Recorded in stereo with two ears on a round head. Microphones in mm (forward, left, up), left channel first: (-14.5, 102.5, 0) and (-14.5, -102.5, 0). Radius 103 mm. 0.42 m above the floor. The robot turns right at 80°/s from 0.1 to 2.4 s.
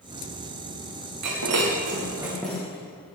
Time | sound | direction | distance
1.2 | breaking glass | 90° right | 9 m